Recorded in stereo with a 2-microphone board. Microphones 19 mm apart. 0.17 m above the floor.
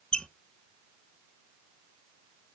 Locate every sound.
0.1 s a squeak: 55° left (ahead or behind), 0.8 m